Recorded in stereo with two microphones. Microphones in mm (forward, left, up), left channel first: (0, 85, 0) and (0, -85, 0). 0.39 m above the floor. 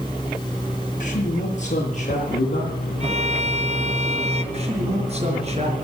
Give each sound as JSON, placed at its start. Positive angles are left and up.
{"t": 1.0, "sound": "a man speaking", "side_deg": 50, "distance_m": 6.0}
{"t": 3.0, "sound": "a violin", "side_deg": -40, "distance_m": 1.2}
{"t": 4.5, "sound": "a man speaking", "side_deg": -40, "distance_m": 5.5}